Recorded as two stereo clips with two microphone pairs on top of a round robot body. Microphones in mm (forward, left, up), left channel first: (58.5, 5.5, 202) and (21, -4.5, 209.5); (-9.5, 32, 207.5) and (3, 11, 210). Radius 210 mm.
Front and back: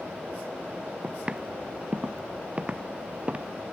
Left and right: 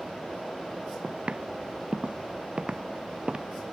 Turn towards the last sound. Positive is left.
turn(degrees=-110)